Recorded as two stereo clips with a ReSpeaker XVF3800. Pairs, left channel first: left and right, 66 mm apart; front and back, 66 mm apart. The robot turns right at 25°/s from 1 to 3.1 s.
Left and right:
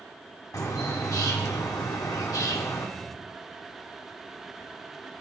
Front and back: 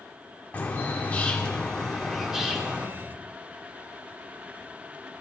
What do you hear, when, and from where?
0.5 s a bird: 65° left, 1.3 m; by 2.9 s 110° left, 1.3 m